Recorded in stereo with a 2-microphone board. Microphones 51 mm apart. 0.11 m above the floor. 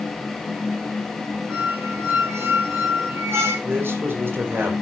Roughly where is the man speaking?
Right.